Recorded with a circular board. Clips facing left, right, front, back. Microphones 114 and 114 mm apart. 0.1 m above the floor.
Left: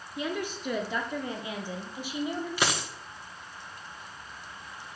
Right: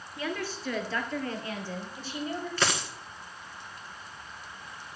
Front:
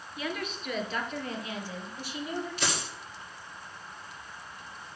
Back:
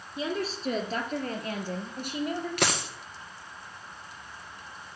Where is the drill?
No drill in this recording.